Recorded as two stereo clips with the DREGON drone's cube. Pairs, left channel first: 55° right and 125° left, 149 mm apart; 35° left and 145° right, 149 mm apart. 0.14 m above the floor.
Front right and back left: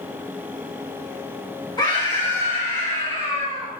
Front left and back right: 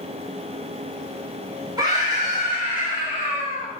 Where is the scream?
95° right, 1.9 m.